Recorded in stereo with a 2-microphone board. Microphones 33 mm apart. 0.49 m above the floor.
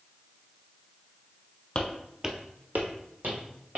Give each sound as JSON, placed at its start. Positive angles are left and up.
{"t": 1.8, "sound": "footsteps", "side_deg": 30, "distance_m": 0.9}